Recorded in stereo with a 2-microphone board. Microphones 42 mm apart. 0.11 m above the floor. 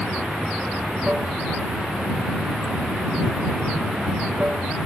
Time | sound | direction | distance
0.0 | running water | 25° right (ahead or behind) | ?